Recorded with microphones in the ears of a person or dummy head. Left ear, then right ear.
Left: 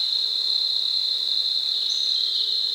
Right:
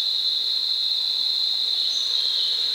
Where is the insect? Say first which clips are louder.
Even; 45° left (ahead or behind), 2 m.